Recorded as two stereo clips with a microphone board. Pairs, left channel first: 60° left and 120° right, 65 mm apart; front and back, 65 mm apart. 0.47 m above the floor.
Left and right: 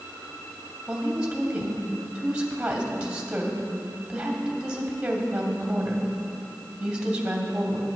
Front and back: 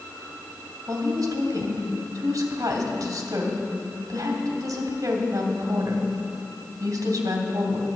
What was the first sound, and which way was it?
A woman speaking, 165° left.